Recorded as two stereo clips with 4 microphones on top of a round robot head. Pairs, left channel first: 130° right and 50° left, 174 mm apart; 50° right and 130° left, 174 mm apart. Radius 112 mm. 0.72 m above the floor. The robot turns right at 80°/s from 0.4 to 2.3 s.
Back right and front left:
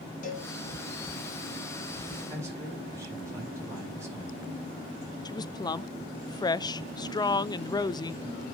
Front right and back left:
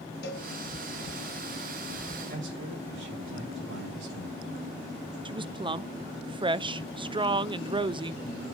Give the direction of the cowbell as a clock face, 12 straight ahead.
3 o'clock.